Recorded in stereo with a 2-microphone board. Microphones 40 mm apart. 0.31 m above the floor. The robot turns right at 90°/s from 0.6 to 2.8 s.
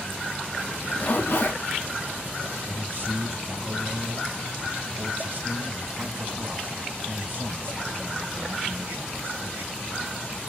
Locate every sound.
0.7 s a zipper: 20° left, 1.8 m; by 1.6 s 100° left, 1.8 m
2.7 s a man speaking: 50° right (ahead or behind), 1.8 m; by 9.8 s 55° right (ahead or behind), 1.8 m